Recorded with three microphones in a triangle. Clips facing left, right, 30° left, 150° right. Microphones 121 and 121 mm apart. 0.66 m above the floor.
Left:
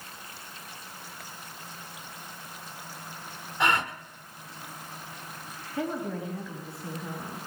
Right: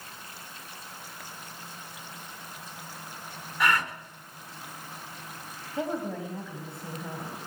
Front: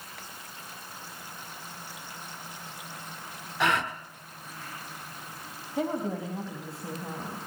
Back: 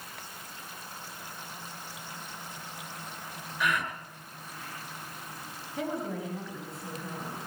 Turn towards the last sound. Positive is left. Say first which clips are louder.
# even, front 4 dB
turn(degrees=-25)